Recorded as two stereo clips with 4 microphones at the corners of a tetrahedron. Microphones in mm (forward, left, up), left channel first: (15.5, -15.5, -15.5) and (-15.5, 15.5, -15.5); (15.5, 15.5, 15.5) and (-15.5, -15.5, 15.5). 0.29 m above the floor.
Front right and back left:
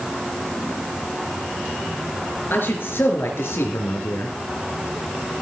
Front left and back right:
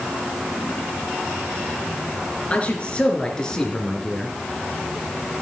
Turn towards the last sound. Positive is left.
turn(degrees=-40)